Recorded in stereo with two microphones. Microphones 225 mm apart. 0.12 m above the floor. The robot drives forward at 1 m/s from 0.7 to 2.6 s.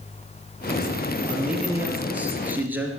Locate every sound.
1.3 s a man speaking: 5° right (ahead or behind), 3.5 m